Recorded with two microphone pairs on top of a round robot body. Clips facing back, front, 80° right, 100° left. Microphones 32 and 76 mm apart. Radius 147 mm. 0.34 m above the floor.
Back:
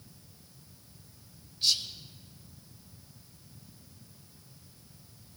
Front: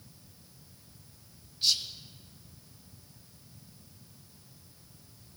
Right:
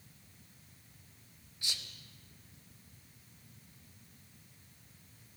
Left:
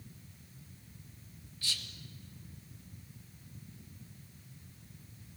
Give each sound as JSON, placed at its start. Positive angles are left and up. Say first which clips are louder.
{"t": 1.6, "sound": "whispering", "louder": "even, left 2 dB", "azimuth_deg": -90, "distance_m": 1.0}